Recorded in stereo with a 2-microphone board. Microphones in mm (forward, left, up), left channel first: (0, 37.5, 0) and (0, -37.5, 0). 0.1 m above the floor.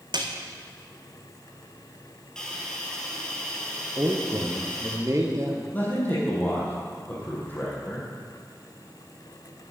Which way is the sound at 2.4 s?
10° left (ahead or behind).